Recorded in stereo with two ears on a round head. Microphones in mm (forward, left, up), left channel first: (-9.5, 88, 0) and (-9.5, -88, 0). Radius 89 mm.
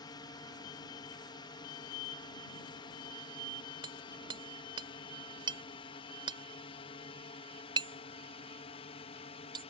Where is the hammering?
25° right (ahead or behind).